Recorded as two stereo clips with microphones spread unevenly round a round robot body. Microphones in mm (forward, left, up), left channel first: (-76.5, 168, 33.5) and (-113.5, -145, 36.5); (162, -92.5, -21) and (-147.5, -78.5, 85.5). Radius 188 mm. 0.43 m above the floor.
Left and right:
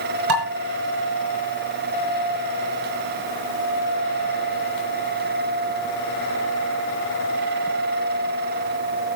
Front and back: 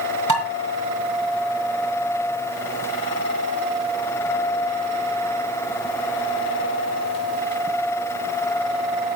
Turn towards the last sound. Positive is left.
turn(degrees=-75)